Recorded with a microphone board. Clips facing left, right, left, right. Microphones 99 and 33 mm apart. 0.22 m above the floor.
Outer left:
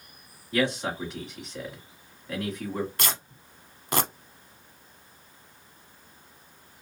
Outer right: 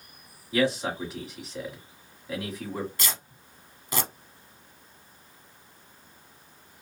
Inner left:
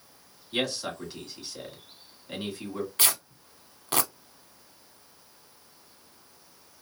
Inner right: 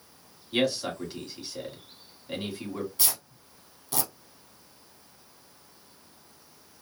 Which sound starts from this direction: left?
Tearing paper, at 3.0 s.